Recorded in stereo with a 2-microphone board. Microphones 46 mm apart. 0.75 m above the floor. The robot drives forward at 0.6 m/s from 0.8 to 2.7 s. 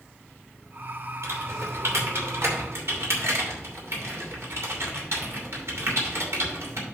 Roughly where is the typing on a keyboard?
Right.